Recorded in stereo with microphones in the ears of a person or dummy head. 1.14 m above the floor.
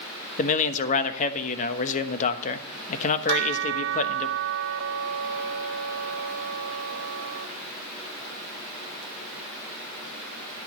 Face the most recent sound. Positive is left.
turn(degrees=-65)  # may be behind; listen again after turning